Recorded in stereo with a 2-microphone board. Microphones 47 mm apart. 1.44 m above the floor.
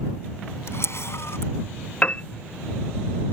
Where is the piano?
25° left (ahead or behind).